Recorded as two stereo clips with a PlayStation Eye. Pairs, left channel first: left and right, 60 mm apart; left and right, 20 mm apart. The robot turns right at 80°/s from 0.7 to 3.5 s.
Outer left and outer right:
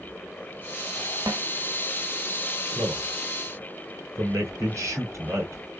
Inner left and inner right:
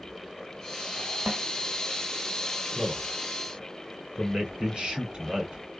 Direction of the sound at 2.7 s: 50° right (ahead or behind).